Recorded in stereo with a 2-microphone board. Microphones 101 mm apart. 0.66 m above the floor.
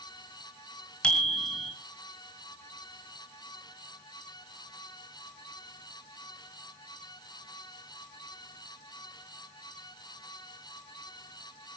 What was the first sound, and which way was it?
A bicycle bell, 10° left (ahead or behind).